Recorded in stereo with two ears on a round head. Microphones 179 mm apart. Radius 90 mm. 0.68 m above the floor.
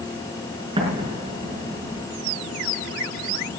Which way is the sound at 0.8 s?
30° right (ahead or behind).